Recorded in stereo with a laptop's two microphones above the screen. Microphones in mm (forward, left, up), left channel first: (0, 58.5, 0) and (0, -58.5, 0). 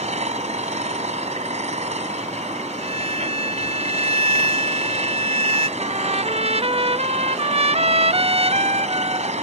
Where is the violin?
65° right (ahead or behind).